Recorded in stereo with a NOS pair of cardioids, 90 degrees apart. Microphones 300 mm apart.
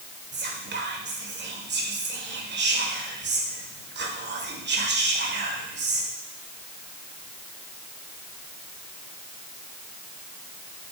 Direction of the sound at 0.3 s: 40° right.